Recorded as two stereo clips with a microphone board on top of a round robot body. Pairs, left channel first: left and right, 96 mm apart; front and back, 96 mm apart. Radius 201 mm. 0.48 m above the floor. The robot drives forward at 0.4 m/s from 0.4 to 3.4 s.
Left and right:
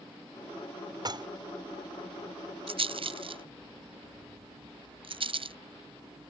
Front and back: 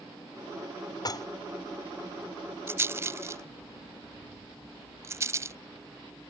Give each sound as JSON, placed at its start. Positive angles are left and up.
{"t": 1.1, "sound": "dishes clattering", "azimuth_deg": -45}
{"t": 2.7, "sound": "a rattle", "azimuth_deg": -115}